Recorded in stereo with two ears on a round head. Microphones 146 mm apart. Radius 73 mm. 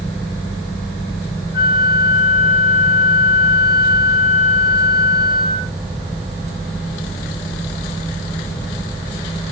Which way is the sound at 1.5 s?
60° left (ahead or behind).